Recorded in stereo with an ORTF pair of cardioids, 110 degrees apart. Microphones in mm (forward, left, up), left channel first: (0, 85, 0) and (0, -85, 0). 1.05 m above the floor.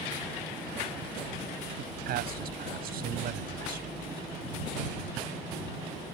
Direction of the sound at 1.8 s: 65° right.